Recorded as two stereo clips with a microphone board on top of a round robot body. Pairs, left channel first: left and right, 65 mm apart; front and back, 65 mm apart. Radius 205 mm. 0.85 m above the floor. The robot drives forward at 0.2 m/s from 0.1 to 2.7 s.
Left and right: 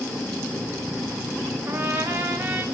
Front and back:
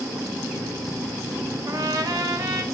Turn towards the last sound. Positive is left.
turn(degrees=-160)